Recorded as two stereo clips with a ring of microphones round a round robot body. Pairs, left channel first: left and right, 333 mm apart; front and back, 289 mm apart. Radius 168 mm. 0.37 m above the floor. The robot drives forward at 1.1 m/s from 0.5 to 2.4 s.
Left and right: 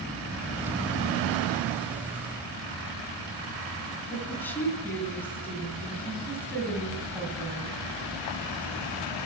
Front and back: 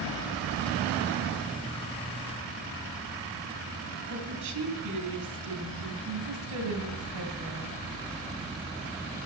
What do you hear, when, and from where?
4.1 s a woman speaking: 175° left, 3 m